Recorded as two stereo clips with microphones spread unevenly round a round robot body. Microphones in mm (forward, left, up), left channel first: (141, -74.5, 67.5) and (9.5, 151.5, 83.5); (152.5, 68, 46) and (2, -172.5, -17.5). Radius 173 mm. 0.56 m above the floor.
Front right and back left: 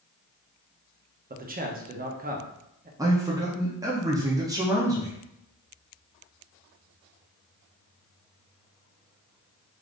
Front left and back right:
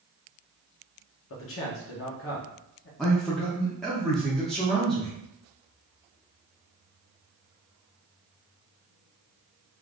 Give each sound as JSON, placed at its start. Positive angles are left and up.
{"t": 1.3, "sound": "a man speaking", "azimuth_deg": 85, "distance_m": 0.7}
{"t": 3.0, "sound": "a man speaking", "azimuth_deg": 180, "distance_m": 0.6}